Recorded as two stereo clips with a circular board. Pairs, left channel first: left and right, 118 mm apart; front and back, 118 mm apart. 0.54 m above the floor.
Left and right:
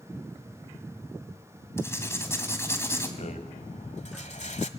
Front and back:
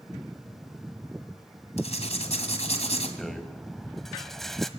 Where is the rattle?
90° left, 1.3 m.